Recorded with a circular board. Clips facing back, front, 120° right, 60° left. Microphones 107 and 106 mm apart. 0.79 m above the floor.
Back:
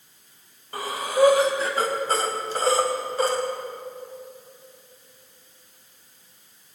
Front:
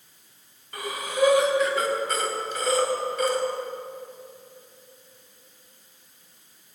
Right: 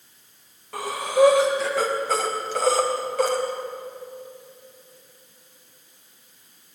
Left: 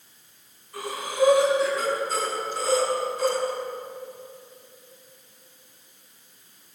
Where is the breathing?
120° right, 4 m.